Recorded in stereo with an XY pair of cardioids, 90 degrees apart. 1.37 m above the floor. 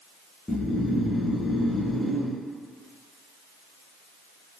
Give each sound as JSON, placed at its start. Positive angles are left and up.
{"t": 0.5, "sound": "snoring", "azimuth_deg": 25, "distance_m": 0.9}